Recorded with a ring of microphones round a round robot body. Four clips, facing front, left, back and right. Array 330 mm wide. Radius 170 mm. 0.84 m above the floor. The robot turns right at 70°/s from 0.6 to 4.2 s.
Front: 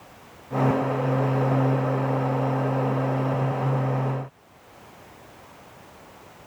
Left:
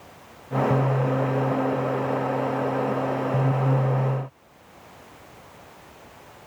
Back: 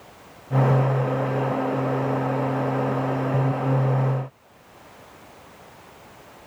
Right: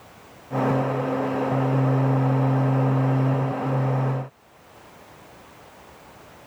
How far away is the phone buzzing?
I don't hear a phone buzzing.